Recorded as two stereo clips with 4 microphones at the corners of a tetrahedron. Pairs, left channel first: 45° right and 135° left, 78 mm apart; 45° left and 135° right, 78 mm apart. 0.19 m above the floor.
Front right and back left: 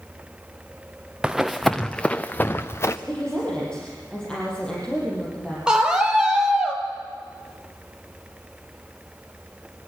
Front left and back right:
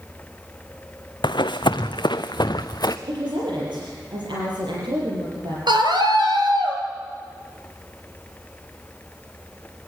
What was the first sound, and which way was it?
Running footsteps, 55° left.